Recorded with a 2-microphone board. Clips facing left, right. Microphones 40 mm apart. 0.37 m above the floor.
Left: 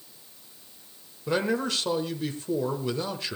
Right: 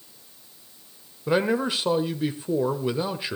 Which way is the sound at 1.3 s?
20° right (ahead or behind).